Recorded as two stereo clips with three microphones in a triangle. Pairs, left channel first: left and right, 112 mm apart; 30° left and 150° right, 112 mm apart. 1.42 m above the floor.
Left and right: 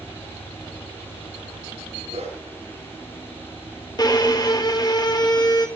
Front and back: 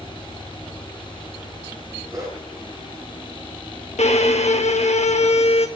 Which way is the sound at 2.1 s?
90° right.